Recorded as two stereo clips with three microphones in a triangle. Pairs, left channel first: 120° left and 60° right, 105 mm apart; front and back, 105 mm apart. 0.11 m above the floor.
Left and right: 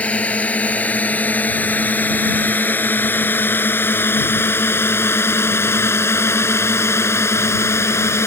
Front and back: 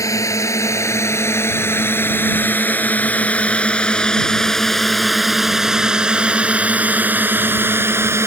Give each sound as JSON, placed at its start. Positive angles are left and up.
{"t": 0.0, "sound": "a drone", "azimuth_deg": 45}